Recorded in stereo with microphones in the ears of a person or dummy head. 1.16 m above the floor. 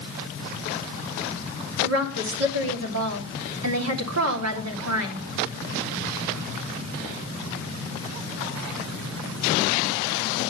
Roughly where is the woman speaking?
Right.